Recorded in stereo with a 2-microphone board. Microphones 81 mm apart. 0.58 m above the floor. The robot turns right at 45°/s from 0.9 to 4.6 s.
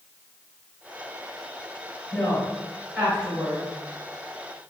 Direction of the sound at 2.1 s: 40° left (ahead or behind).